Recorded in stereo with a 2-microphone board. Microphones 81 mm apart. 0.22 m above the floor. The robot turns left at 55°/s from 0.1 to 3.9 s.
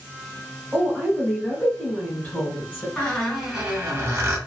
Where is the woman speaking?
5° right (ahead or behind), 1.2 m; by 2.9 s 20° left (ahead or behind), 1.2 m.